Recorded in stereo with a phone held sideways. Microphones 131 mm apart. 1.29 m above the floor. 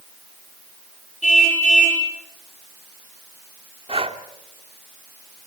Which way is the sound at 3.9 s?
45° right (ahead or behind).